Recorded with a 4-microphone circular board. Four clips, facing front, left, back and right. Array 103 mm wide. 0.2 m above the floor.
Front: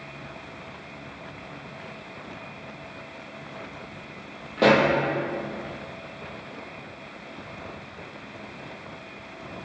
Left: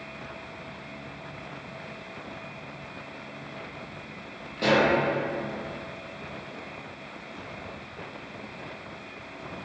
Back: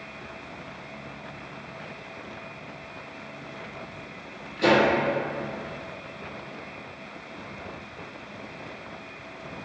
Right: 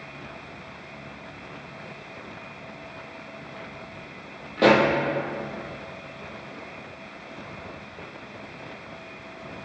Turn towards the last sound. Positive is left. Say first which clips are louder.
# right 5 dB, front 2 dB
turn(degrees=-40)